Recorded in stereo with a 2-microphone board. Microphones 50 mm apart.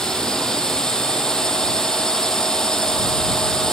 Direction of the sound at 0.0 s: 15° left (ahead or behind).